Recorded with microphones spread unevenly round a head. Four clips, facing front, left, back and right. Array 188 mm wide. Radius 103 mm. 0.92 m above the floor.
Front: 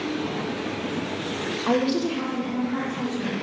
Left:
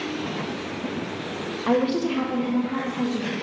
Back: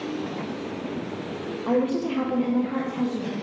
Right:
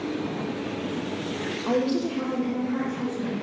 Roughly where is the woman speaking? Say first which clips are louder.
Left 3 dB, even; ahead.